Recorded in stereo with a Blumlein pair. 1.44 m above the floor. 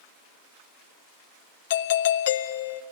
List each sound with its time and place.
1.7 s a doorbell: 55° left, 0.5 m